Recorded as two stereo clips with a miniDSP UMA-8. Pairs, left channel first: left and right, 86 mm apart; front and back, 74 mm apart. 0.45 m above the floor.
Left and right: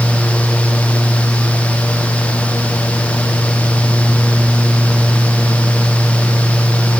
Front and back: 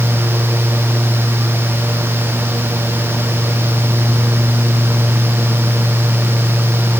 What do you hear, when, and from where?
Only background noise.